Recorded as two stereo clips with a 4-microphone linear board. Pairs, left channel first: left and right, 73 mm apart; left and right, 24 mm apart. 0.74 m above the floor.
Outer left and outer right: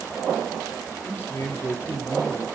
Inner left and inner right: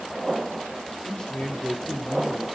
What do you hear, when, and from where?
1.0 s a man speaking: 30° left (ahead or behind), 2 m